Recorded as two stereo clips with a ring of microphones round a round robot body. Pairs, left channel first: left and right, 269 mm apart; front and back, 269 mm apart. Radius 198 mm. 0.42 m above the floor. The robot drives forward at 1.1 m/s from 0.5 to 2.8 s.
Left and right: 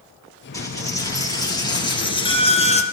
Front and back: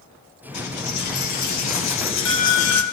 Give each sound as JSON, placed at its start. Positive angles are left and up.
{"t": 0.5, "sound": "a dropped coin", "azimuth_deg": 10, "distance_m": 4.5}